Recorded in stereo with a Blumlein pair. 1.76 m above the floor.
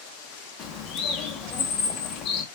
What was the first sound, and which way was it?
A bird, 30° left.